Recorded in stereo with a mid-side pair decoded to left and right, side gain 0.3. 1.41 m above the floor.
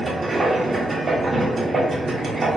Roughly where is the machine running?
Ahead right.